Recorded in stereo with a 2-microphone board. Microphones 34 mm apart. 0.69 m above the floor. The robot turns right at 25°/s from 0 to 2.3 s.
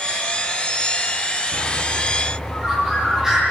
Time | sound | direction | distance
1.5 | a bird | 5° left (ahead or behind) | 8.5 m